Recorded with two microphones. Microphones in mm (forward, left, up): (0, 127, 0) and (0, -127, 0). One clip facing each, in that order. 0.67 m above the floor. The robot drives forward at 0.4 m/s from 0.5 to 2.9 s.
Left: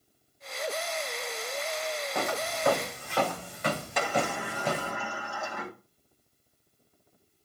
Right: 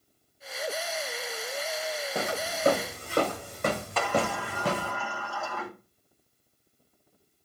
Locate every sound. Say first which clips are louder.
2.1 s footsteps: even; 20° right (ahead or behind), 2.5 m; by 4.9 s 70° right (ahead or behind), 3.5 m
4.0 s a sliding door: right 2 dB; 15° left (ahead or behind), 1.9 m